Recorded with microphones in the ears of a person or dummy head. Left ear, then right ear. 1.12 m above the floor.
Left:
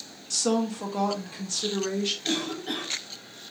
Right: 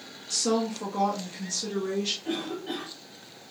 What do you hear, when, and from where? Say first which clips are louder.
0.3 s a woman speaking: even; 20° left (ahead or behind), 0.7 m; by 2.1 s 30° left (ahead or behind), 1.4 m
2.2 s a cough: left 3 dB; 80° left, 1.0 m